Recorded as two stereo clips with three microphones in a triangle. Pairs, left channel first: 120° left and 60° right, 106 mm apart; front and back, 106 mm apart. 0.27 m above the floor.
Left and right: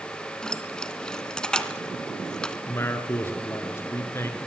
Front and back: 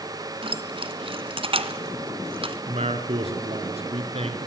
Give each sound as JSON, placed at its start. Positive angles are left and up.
{"t": 0.4, "sound": "keys jangling", "azimuth_deg": -160, "distance_m": 2.0}
{"t": 2.7, "sound": "a man speaking", "azimuth_deg": -175, "distance_m": 3.5}